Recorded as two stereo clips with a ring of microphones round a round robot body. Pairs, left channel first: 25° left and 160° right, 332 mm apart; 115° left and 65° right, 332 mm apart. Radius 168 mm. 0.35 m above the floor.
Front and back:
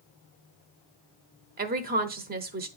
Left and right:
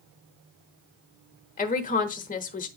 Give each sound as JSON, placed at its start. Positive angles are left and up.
{"t": 1.6, "sound": "a woman speaking", "azimuth_deg": 160, "distance_m": 1.1}